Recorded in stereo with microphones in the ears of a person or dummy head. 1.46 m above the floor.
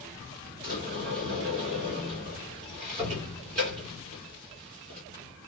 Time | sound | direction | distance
0.6 | a sliding door | 40° right (ahead or behind) | 2.5 m